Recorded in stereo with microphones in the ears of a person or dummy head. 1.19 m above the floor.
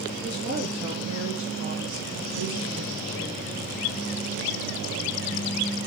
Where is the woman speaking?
20° right (ahead or behind), 1.0 m; by 3.5 s 70° right (ahead or behind), 2.0 m.